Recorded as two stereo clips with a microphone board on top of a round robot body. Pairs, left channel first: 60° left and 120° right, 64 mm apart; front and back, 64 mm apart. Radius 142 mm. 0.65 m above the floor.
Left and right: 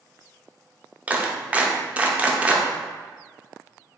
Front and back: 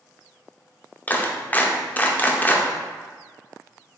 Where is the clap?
60° right, 0.9 m.